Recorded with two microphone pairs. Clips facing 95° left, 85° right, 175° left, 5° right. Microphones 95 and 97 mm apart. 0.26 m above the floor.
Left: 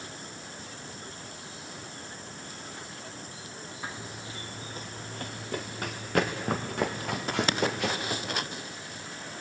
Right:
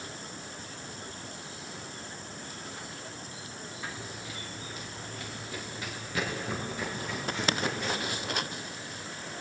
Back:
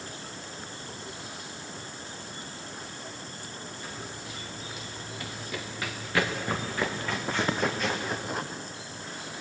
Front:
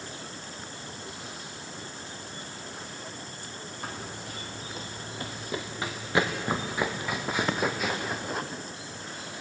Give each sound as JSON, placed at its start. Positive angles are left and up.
{"t": 3.8, "sound": "running footsteps", "azimuth_deg": 30, "distance_m": 1.7}